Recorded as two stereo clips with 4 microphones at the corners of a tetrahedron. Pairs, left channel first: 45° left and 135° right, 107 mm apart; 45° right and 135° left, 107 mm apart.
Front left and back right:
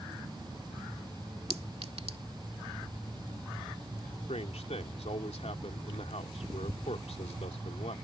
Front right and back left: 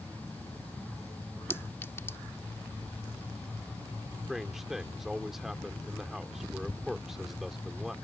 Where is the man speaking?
50° left.